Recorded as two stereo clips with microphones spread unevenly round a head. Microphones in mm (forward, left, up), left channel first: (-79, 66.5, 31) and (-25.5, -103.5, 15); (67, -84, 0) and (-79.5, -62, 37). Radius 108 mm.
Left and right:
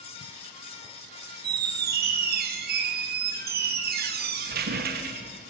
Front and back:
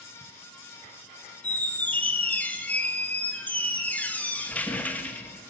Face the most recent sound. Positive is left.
turn(degrees=-95)